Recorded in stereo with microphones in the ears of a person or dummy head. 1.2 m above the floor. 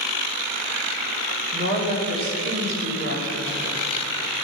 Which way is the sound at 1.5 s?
45° right (ahead or behind).